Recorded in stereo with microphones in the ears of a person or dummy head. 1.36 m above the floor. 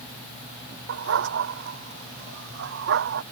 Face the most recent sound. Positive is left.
turn(degrees=-70)  # may be behind; listen again after turning